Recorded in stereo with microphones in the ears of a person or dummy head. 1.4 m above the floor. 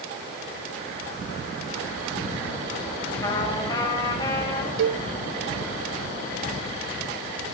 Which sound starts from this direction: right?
A cowbell, at 4.8 s.